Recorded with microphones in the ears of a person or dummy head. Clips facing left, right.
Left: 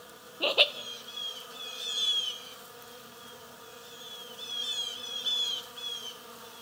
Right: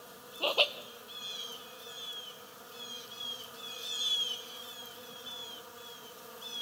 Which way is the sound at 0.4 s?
25° left (ahead or behind).